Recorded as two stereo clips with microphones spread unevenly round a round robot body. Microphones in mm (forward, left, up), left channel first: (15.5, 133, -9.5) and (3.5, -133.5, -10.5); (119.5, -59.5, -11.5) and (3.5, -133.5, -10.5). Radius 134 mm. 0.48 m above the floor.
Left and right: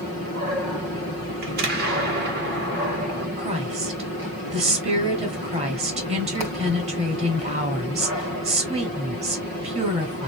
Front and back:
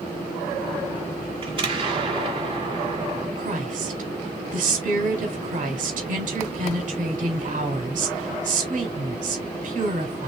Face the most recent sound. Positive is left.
turn(degrees=-155)